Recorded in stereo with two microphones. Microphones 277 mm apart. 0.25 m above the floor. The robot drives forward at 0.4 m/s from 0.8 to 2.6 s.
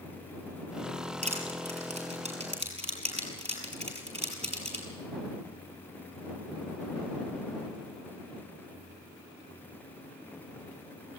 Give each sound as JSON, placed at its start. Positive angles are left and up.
{"t": 1.2, "sound": "crushing", "side_deg": -25, "distance_m": 6.5}